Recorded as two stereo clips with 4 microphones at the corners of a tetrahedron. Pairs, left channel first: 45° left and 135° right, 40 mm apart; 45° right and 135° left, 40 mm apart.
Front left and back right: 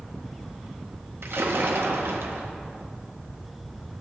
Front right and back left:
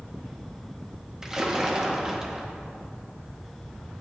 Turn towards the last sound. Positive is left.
turn(degrees=-150)